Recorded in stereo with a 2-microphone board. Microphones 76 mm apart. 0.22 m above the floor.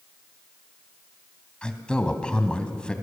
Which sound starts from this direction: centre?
A man speaking, at 1.6 s.